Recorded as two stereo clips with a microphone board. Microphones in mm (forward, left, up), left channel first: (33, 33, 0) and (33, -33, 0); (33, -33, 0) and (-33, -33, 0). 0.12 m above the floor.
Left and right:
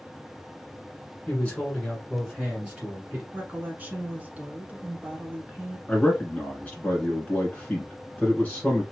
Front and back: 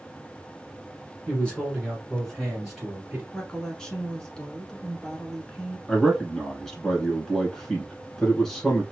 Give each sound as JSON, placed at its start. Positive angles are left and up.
{"t": 1.3, "sound": "a man speaking", "azimuth_deg": 55, "distance_m": 1.6}
{"t": 3.3, "sound": "a woman speaking", "azimuth_deg": -65, "distance_m": 1.2}
{"t": 5.9, "sound": "a man speaking", "azimuth_deg": 70, "distance_m": 1.5}